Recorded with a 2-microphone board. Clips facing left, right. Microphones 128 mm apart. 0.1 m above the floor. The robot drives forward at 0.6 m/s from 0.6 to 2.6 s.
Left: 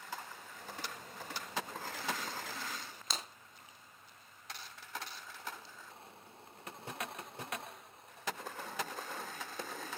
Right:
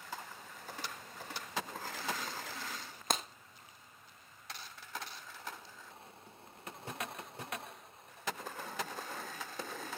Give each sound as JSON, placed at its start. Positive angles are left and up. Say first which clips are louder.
{"t": 3.1, "sound": "breaking glass", "louder": "right 8 dB", "side_deg": -55, "distance_m": 1.7}